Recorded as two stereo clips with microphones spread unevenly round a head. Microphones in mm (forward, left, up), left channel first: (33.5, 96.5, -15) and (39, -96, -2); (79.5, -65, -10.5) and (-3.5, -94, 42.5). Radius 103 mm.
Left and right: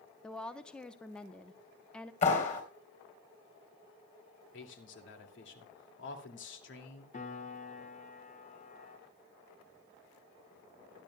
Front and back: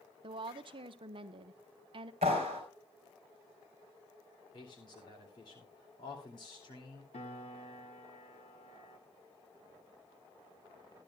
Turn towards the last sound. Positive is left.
turn(degrees=40)